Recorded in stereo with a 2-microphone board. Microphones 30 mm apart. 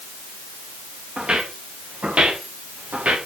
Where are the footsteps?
30° right (ahead or behind), 5 m; by 3.2 s 45° right (ahead or behind), 5 m.